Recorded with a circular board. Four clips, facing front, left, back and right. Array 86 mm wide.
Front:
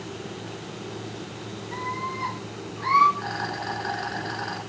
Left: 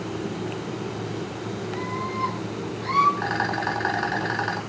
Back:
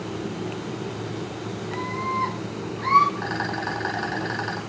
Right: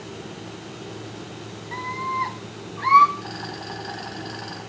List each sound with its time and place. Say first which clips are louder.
1.7 s a scream: right 5 dB, back 3 dB; 100° right, 9.5 m
3.2 s a rattle: left 9 dB, back 3 dB; 110° left, 3.5 m